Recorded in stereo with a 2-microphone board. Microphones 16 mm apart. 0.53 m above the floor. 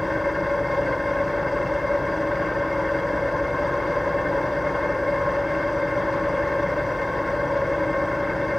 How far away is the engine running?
About 0.9 m.